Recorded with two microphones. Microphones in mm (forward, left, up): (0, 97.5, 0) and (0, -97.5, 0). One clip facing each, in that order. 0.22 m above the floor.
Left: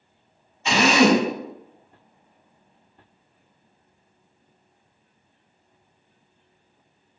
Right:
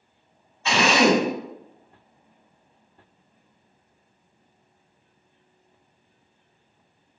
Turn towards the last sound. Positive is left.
turn(degrees=15)  # may be behind; listen again after turning